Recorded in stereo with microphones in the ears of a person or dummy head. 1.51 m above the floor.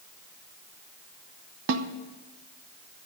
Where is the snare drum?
70° right (ahead or behind), 0.8 m.